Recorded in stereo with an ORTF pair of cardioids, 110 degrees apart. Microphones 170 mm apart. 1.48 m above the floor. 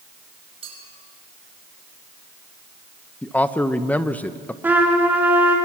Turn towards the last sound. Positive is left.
turn(degrees=-10)